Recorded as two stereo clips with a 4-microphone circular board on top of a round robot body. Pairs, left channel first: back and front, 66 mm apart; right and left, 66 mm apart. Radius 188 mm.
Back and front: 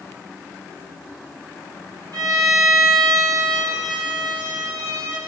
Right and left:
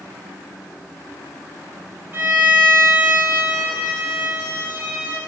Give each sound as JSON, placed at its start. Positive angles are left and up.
{"t": 2.1, "sound": "a violin", "azimuth_deg": 30, "distance_m": 3.5}